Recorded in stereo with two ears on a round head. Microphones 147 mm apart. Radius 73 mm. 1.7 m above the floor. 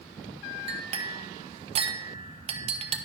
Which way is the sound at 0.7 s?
35° right (ahead or behind).